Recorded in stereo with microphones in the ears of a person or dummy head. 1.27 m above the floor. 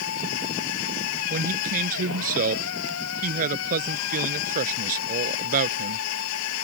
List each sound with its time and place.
0.0 s a machine running: 70° left (ahead or behind)
1.3 s a man speaking: 50° right (ahead or behind)